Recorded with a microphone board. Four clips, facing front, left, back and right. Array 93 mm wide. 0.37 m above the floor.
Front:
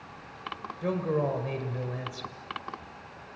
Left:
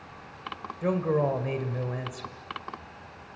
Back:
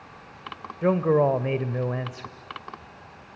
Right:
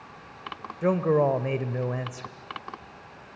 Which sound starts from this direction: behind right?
A man speaking, at 0.8 s.